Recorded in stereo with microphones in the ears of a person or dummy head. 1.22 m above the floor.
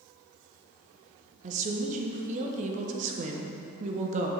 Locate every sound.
1.4 s a woman speaking: 35° right (ahead or behind), 0.8 m